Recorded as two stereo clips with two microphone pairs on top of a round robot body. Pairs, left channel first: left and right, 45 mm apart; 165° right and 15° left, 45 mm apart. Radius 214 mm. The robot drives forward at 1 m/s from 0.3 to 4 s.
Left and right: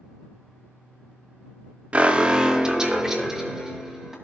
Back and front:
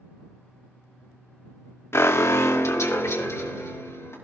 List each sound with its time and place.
1.9 s an alarm: 145° right, 0.9 m; by 4.2 s 170° right, 2.5 m